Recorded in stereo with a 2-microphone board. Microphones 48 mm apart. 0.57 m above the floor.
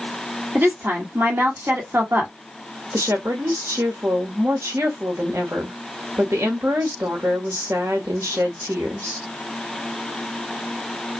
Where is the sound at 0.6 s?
50° right (ahead or behind), 1.8 m.